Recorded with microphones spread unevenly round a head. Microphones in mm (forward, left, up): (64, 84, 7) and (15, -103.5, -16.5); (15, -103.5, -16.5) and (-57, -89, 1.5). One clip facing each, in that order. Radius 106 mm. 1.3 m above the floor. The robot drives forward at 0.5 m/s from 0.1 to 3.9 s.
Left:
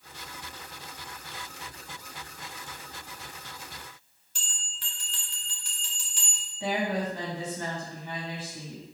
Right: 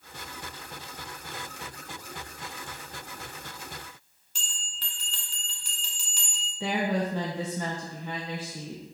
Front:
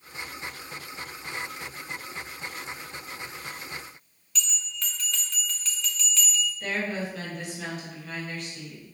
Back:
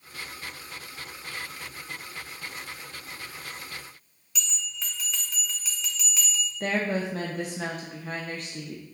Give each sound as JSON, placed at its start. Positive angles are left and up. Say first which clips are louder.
{"t": 4.3, "sound": "a bell", "louder": "right 2 dB, front 1 dB", "azimuth_deg": -120, "distance_m": 2.0}
{"t": 6.6, "sound": "a woman speaking", "louder": "right 1 dB, back 5 dB", "azimuth_deg": -140, "distance_m": 1.0}